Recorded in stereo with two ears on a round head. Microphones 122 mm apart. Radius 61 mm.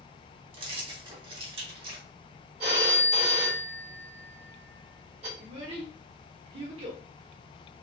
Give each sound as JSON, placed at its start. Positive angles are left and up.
{"t": 0.5, "sound": "keys jangling", "side_deg": -40, "distance_m": 0.8}
{"t": 2.6, "sound": "a phone ringing", "side_deg": -50, "distance_m": 1.5}
{"t": 5.4, "sound": "a child speaking", "side_deg": -45, "distance_m": 1.0}